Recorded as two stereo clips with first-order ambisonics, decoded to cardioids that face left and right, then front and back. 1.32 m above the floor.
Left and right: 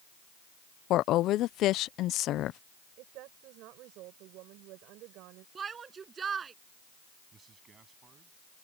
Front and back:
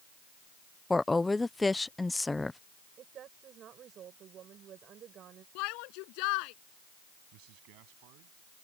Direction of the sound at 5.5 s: 20° right.